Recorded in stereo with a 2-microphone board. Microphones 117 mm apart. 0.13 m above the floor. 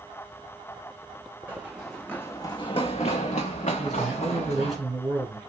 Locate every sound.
1.5 s running footsteps: 15° right (ahead or behind), 0.7 m; by 4.8 s 85° left, 1.4 m
3.8 s a man speaking: centre (ahead or behind), 1.7 m